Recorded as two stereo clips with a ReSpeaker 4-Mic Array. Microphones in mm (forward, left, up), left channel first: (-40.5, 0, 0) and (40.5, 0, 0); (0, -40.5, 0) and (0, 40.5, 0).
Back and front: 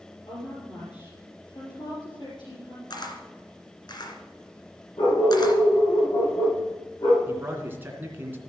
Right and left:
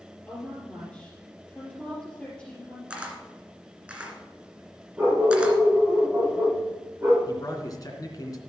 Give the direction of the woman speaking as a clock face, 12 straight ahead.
6 o'clock.